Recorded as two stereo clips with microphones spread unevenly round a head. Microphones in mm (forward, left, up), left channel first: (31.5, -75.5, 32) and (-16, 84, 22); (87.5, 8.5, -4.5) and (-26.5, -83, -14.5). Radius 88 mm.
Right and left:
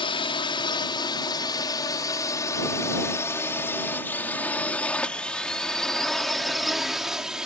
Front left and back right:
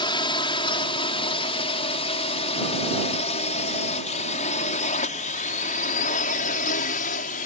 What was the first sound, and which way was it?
A drone, 15° right.